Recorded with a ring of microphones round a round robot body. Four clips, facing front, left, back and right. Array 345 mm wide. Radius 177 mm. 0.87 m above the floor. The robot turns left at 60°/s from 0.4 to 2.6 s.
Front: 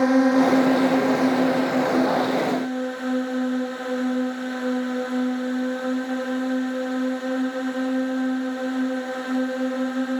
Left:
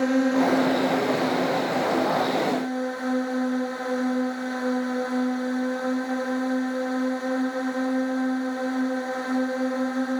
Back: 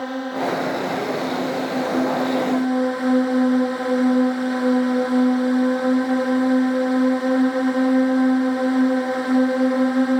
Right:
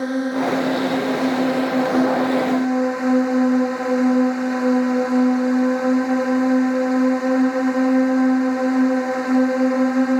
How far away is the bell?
No bell in this recording.